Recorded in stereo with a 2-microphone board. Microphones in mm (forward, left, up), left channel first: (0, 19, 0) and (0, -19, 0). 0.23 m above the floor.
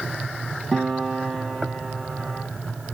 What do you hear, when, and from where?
0.7 s a piano: 10° left (ahead or behind), 3 m